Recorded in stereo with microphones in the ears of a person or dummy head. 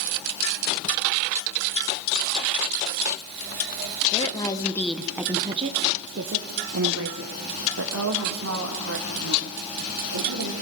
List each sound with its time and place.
4.1 s a woman speaking: 35° left (ahead or behind), 1.2 m; by 10.5 s 80° right, 4 m